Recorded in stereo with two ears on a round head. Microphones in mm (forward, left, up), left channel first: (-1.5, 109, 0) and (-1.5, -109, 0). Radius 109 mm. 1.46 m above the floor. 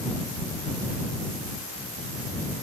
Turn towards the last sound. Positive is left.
No sound to turn to.